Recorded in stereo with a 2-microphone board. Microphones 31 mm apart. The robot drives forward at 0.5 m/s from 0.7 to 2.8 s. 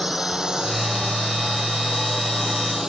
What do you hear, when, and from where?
0.0 s a drone: 25° right (ahead or behind); by 2.9 s 20° right (ahead or behind)